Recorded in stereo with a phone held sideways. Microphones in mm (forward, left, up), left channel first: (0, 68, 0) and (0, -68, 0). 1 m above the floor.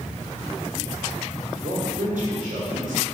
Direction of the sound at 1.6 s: 75° right (ahead or behind).